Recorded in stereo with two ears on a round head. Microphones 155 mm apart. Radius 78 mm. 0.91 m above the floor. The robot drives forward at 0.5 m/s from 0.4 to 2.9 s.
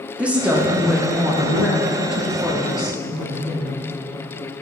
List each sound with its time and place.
0.2 s a woman speaking: 10° right (ahead or behind), 1.0 m; by 3.8 s 5° right (ahead or behind), 2 m